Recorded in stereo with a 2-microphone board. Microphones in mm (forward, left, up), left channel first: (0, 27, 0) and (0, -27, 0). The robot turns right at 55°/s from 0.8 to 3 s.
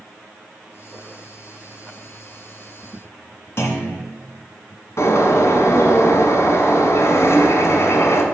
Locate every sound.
3.6 s a clunk: 50° left (ahead or behind), 2.5 m
5.0 s a bird: 60° left (ahead or behind), 1.7 m